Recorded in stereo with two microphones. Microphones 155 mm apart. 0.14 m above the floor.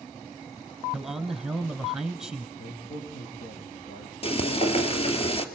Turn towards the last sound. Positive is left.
turn(degrees=40)  # may be behind; listen again after turning